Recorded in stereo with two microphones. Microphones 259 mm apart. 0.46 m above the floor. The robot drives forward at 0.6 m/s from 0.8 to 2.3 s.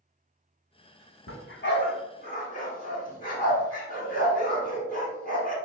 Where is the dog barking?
55° left (ahead or behind), 0.8 m; by 5.6 s 35° left (ahead or behind), 1.2 m.